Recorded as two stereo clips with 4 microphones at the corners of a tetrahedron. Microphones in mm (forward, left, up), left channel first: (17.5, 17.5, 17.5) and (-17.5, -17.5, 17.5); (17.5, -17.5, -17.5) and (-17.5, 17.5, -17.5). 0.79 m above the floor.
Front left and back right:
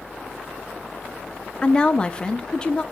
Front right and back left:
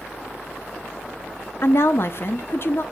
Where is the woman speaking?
25° right, 0.7 m.